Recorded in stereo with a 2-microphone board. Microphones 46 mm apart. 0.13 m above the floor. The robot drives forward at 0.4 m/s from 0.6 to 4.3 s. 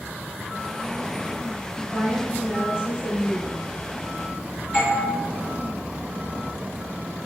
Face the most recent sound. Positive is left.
turn(degrees=-15)  # may be behind; listen again after turning